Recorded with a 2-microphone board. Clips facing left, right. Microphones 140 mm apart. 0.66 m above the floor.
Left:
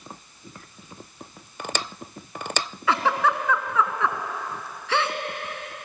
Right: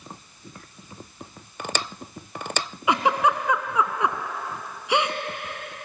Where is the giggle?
15° right (ahead or behind), 1.2 m.